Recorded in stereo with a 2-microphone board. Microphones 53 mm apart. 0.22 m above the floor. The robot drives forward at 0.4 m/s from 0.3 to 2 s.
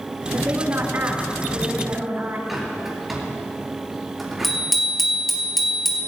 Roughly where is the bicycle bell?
Centre.